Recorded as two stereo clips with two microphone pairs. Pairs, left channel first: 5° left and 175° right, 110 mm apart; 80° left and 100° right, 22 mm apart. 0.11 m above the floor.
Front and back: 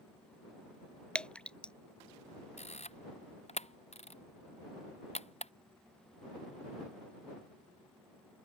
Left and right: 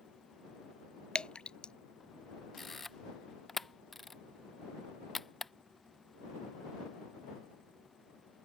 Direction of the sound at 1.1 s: 85° left.